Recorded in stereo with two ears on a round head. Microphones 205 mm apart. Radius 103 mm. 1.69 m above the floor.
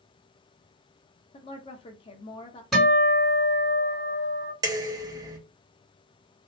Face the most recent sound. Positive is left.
turn(degrees=-15)  # may be behind; listen again after turning